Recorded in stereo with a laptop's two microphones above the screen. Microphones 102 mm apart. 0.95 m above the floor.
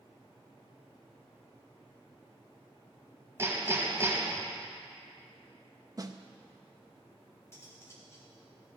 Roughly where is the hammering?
Right.